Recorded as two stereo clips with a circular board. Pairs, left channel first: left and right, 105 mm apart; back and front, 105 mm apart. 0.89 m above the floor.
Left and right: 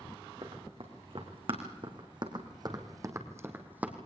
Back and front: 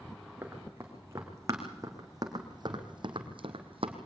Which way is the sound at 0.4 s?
70° right.